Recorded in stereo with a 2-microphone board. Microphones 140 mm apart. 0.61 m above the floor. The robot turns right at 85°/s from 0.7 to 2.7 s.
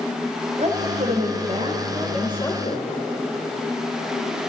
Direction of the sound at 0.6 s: 125° right.